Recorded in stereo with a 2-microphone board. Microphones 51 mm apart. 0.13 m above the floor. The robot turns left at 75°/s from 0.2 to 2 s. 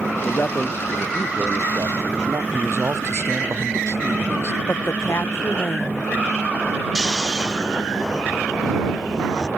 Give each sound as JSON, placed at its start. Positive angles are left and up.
{"t": 0.2, "sound": "a man speaking", "azimuth_deg": 50}
{"t": 2.5, "sound": "a man speaking", "side_deg": -70}
{"t": 4.7, "sound": "a woman speaking", "side_deg": 55}
{"t": 7.0, "sound": "snoring", "side_deg": -10}